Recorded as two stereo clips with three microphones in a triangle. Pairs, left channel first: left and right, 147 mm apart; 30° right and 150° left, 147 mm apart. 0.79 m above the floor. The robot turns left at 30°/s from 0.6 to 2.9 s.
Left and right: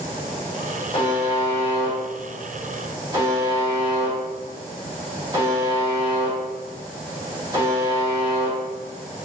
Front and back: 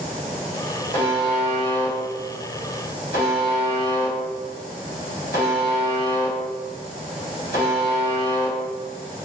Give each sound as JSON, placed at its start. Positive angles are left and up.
{"t": 0.9, "sound": "a buzzer", "azimuth_deg": 30, "distance_m": 1.5}